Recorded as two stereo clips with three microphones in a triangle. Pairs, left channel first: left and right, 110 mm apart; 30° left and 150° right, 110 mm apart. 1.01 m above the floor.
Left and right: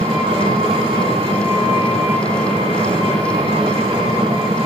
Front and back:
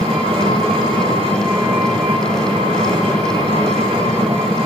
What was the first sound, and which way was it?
An engine running, 120° right.